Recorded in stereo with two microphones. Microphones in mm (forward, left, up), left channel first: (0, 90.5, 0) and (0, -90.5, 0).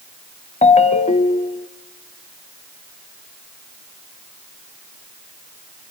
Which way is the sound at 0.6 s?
35° left (ahead or behind).